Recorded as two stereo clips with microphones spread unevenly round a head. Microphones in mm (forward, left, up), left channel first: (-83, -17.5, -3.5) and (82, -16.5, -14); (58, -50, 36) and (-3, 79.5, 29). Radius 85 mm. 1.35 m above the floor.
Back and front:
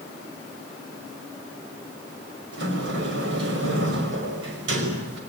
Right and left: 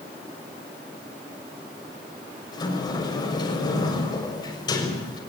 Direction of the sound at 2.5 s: 5° right.